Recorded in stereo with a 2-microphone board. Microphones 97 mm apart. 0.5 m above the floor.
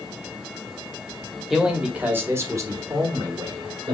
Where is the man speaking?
Centre (ahead or behind), 1.0 m; by 3.9 s 55° right (ahead or behind), 1.5 m.